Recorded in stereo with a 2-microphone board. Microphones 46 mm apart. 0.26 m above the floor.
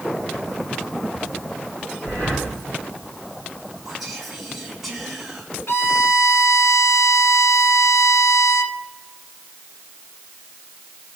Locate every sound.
2.0 s breathing: 50° left (ahead or behind), 5.5 m
3.9 s whispering: 5° right (ahead or behind), 4 m
5.7 s a violin: 70° left (ahead or behind), 1.2 m